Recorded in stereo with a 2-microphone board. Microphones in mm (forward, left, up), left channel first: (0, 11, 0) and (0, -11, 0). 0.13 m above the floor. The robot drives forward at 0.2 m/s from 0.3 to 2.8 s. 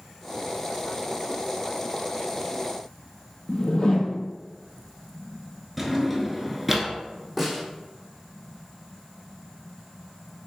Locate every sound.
3.5 s a whoosh: 35° left (ahead or behind), 0.6 m
5.8 s a drawer: 5° right (ahead or behind), 0.7 m
7.4 s a snare drum: 5° right (ahead or behind), 1.6 m